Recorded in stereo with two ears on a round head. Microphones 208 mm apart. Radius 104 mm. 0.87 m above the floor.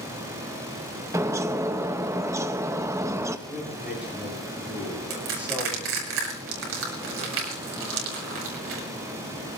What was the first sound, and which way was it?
A bird, 15° right (ahead or behind).